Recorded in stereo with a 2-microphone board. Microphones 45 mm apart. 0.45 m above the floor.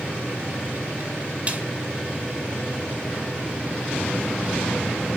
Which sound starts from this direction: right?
A snare drum, at 1.5 s.